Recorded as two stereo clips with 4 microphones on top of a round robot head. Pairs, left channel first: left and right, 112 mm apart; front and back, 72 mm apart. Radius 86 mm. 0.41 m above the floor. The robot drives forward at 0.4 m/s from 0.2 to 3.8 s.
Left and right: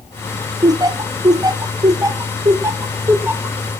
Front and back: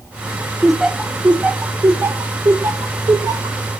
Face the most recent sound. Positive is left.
turn(degrees=-155)